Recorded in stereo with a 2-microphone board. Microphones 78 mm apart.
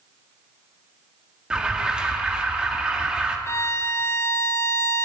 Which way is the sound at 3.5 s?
40° left (ahead or behind).